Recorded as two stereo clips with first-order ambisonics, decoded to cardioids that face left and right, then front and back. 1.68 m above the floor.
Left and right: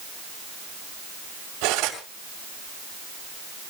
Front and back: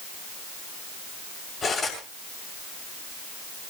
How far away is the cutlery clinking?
About 6.5 m.